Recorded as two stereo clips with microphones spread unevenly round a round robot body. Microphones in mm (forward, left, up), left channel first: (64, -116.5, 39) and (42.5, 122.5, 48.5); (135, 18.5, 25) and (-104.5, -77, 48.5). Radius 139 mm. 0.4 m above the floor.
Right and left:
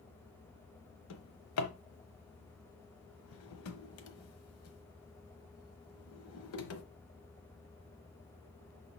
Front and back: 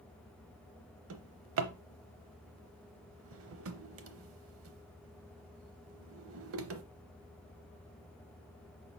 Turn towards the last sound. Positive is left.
turn(degrees=-120)